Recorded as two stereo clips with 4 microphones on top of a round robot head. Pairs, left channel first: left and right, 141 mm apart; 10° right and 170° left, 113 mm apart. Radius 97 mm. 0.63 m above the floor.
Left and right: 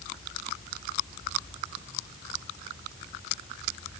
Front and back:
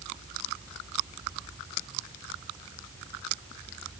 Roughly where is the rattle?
I don't hear a rattle.